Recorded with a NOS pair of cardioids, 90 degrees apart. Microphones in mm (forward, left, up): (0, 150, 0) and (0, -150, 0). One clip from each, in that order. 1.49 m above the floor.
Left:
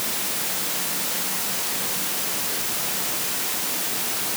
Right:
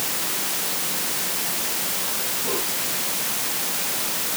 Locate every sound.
Only background noise.